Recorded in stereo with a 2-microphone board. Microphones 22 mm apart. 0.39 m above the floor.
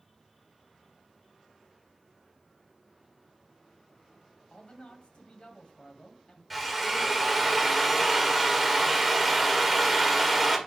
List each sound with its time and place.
4.5 s a man speaking: 60° left (ahead or behind), 2 m
6.5 s a drill: 5° right (ahead or behind), 1.6 m